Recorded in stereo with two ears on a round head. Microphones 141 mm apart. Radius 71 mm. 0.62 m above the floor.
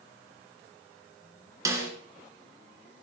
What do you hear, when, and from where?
1.6 s a snare drum: 20° right (ahead or behind), 2.5 m